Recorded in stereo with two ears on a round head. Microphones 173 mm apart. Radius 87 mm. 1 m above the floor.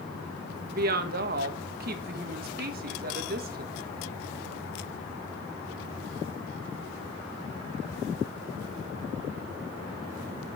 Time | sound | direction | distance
0.7 | a woman speaking | 50° right (ahead or behind) | 1.4 m